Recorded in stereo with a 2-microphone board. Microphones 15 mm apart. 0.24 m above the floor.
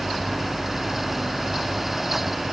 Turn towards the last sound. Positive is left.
No sound to turn to.